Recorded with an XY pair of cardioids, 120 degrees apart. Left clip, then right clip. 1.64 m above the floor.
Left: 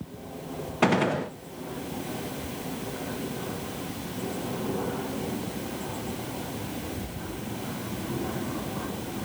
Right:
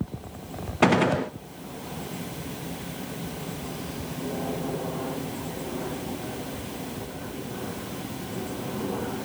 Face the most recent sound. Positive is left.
turn(degrees=-15)